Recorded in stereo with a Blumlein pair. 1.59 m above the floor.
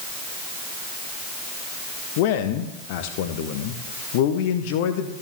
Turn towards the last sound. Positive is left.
turn(degrees=50)